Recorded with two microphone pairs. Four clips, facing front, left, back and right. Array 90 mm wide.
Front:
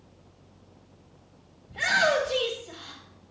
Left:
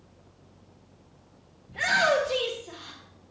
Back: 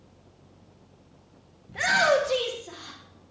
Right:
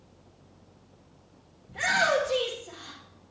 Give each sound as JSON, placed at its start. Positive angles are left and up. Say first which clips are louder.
{"t": 1.7, "sound": "a shout", "louder": "left 1 dB, back 2 dB", "azimuth_deg": -165, "distance_m": 1.1}